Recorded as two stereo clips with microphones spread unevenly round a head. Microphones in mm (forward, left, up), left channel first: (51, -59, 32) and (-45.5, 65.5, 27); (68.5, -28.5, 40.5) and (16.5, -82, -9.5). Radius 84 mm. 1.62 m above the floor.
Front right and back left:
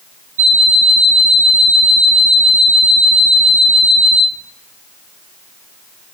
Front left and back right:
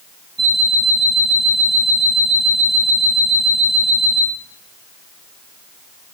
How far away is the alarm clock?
About 5 m.